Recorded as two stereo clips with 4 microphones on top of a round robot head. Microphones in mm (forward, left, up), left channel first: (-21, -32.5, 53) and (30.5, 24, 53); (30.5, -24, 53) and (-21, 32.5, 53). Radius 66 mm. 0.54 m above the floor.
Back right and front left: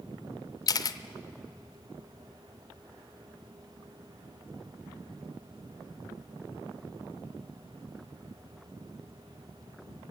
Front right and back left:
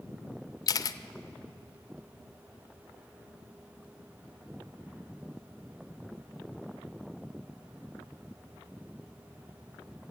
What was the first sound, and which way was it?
A camera shutter, 90° right.